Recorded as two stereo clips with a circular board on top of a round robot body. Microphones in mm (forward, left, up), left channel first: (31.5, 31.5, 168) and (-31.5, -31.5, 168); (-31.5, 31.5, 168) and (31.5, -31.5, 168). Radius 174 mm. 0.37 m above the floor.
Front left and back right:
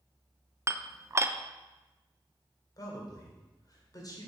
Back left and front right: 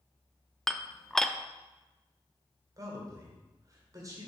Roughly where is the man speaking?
Ahead.